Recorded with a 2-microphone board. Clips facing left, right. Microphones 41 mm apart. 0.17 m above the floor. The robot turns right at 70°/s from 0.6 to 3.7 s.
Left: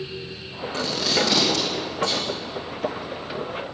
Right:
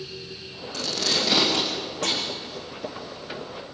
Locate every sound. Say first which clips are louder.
0.7 s tape being pulled: left 3 dB; 30° left (ahead or behind), 7 m; by 2.2 s 70° right (ahead or behind), 7 m